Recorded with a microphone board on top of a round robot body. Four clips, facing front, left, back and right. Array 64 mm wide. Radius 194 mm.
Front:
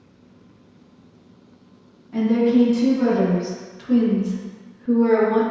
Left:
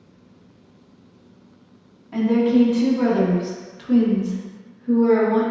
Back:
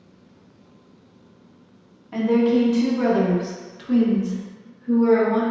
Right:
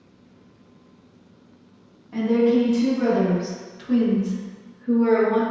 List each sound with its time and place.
2.1 s a woman speaking: 145° left, 1.8 m; by 5.4 s 30° right, 1.5 m